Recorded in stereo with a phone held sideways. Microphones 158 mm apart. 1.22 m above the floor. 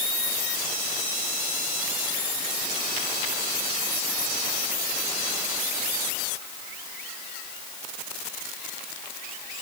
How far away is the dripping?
I don't hear dripping.